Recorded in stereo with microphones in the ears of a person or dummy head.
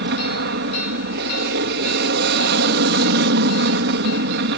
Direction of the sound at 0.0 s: 60° right (ahead or behind).